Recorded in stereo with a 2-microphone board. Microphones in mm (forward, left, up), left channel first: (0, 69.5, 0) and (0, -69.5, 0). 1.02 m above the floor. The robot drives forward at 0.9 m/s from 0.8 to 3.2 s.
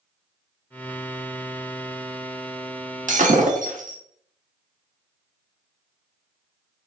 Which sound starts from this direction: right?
Breaking glass, at 3.1 s.